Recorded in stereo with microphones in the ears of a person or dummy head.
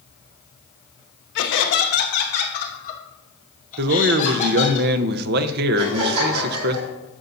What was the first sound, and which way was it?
Laughter, 65° left (ahead or behind).